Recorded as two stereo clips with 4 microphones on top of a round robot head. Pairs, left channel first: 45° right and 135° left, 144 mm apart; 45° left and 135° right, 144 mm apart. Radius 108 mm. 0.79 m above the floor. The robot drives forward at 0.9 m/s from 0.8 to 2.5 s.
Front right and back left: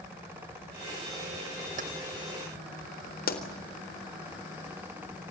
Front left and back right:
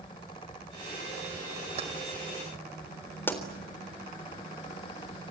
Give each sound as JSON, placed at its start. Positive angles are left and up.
{"t": 1.8, "sound": "keys jangling", "azimuth_deg": 175, "distance_m": 3.0}
{"t": 3.3, "sound": "a pop", "azimuth_deg": -35, "distance_m": 3.5}